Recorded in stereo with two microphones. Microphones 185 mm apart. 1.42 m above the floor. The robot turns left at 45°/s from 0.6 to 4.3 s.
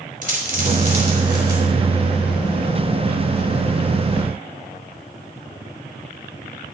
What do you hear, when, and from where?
0.2 s a dropped coin: 50° right (ahead or behind), 3 m; by 1.6 s 75° right (ahead or behind), 3 m